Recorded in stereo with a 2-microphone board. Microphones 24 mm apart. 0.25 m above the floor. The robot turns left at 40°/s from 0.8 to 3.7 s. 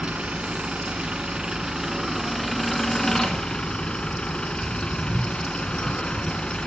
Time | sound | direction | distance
0.0 | an engine running | 110° right | 2 m